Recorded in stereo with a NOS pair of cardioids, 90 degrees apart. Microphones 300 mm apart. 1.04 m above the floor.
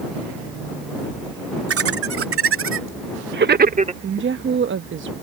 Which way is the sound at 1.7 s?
50° right.